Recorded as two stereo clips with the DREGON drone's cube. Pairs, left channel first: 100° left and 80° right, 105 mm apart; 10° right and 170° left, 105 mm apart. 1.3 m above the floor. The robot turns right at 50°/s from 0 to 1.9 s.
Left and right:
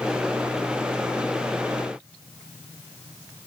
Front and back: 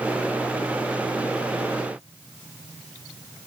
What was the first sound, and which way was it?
Only background noise.